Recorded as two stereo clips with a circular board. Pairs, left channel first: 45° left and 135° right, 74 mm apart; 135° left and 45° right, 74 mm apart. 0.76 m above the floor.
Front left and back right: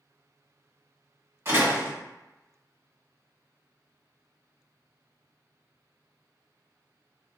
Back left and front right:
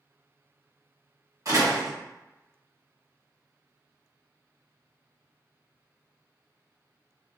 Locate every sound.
1.4 s a door slam: 80° right, 1.7 m